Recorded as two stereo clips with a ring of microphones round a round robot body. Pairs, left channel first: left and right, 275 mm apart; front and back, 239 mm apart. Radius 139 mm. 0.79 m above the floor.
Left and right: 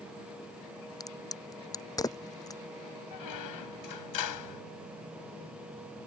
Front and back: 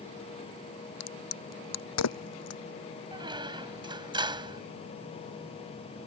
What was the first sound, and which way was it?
A crack, 10° left.